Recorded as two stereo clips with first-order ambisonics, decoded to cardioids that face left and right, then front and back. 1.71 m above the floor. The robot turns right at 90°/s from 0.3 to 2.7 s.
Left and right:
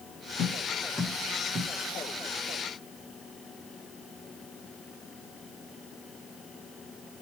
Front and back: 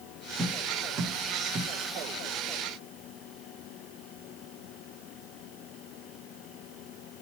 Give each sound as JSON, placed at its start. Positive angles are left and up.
{"t": 0.4, "sound": "tapping", "azimuth_deg": 120, "distance_m": 1.0}